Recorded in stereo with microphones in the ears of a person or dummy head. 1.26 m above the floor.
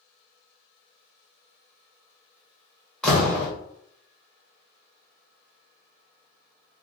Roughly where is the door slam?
Centre.